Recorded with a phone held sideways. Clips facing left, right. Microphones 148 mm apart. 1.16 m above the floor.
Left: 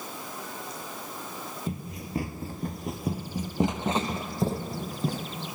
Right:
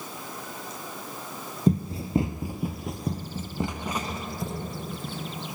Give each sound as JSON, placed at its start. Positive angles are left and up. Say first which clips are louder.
{"t": 1.7, "sound": "running footsteps", "louder": "right 14 dB", "side_deg": -40, "distance_m": 1.7}